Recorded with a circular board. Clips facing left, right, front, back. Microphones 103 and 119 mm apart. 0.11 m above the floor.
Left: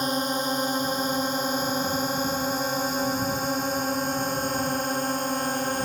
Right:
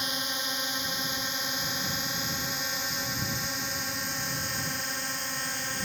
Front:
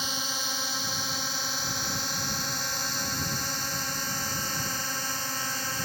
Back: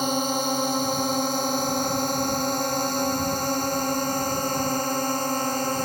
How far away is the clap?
I don't hear a clap.